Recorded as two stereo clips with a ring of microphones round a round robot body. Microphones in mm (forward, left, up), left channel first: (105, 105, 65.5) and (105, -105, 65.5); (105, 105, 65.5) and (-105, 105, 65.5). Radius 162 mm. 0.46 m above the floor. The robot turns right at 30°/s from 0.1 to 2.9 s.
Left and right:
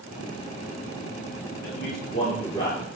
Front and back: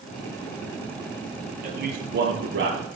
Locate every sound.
1.6 s a man speaking: 135° left, 10 m; by 2.9 s 175° left, 10 m